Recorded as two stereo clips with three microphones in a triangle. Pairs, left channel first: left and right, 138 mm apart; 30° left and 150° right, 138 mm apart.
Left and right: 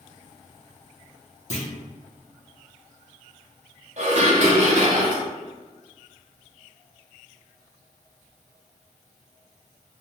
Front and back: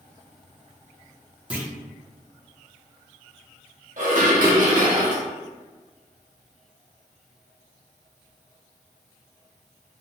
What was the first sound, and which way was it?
A clunk, 130° left.